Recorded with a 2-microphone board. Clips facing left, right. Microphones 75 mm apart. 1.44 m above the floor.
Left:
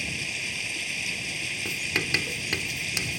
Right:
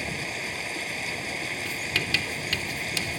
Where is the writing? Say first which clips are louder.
Left 2 dB; 20° left (ahead or behind).